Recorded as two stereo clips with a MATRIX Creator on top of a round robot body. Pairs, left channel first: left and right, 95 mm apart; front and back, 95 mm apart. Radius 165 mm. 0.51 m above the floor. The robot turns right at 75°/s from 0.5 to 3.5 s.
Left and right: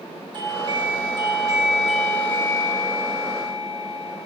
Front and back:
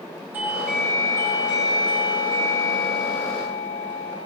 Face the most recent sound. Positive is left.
turn(degrees=110)